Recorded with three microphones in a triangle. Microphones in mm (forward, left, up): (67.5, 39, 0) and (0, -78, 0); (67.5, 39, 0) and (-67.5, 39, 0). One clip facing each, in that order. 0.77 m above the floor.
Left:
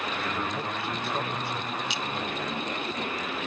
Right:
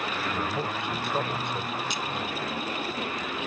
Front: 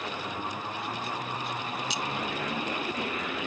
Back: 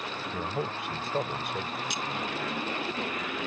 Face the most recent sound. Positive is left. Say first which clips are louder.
# even, front 2 dB
turn(degrees=-155)